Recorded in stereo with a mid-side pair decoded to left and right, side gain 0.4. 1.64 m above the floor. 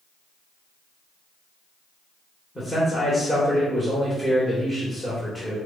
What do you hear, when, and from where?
2.5 s a man speaking: 5° left, 1.7 m